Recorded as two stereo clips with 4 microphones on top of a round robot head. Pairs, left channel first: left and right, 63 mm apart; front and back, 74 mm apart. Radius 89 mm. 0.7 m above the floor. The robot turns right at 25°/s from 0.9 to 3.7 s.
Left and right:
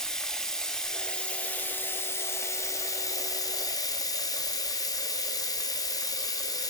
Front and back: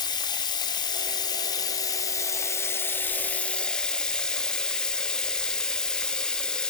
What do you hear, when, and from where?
0.0 s running water: 10° left, 1.1 m; by 6.7 s 80° left, 1.1 m